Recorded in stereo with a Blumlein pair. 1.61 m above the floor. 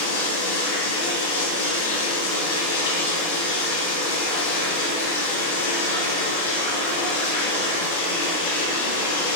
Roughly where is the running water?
Ahead left.